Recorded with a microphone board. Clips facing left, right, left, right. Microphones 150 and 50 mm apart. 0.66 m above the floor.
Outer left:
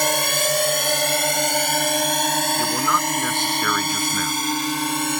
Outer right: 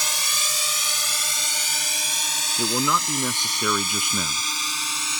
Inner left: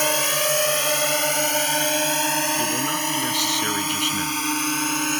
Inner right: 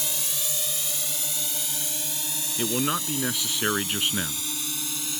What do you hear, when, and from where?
0.0 s a drone: 55° left (ahead or behind)
2.6 s a man speaking: 15° right (ahead or behind)